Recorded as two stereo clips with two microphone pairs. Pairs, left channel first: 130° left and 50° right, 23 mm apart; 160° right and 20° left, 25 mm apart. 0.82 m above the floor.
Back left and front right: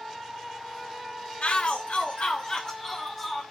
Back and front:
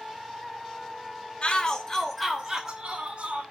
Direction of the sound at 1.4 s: 155° left.